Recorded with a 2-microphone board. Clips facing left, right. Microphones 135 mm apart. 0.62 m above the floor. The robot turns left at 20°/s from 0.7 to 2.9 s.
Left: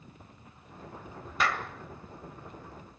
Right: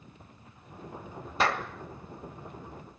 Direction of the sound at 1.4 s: 35° right (ahead or behind).